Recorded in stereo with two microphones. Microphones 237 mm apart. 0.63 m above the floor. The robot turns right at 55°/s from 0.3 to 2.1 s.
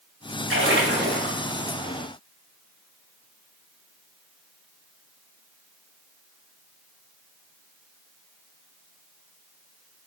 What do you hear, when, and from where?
0.5 s a splash: 85° right, 0.8 m; by 1.4 s 40° right, 0.8 m